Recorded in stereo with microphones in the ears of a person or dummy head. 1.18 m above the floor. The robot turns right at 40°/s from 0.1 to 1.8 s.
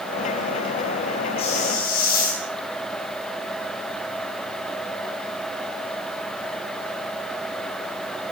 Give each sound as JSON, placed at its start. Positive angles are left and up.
{"t": 1.4, "sound": "a hiss", "side_deg": 35, "distance_m": 9.0}